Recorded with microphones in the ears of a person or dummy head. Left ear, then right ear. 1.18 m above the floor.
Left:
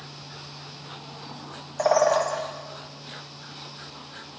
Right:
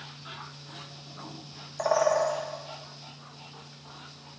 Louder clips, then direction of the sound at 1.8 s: Left 4 dB; 5° left (ahead or behind).